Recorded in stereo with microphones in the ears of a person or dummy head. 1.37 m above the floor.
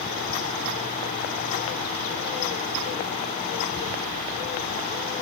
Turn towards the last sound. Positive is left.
No sound to turn to.